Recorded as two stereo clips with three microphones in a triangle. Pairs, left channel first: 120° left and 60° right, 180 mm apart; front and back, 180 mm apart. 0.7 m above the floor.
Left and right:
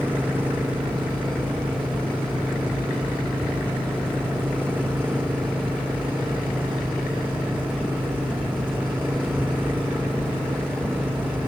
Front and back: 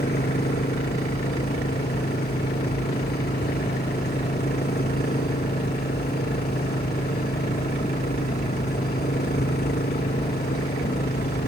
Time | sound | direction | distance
0.0 | an engine running | 20° left | ?